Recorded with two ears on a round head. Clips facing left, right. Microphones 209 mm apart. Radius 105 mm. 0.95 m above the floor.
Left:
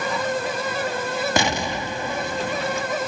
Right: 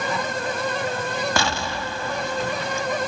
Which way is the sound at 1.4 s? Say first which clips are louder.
Left 2 dB; 15° left (ahead or behind).